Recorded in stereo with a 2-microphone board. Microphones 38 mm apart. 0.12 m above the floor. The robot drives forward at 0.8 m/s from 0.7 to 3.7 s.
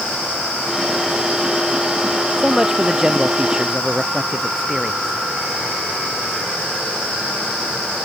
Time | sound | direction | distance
2.4 | a man speaking | 15° right (ahead or behind) | ?